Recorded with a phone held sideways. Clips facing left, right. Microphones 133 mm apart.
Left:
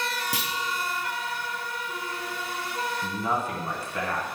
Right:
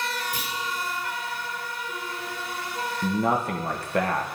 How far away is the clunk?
About 1.1 m.